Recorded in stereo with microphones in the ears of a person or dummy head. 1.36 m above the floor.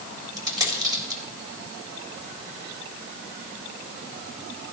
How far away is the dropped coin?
About 3.5 m.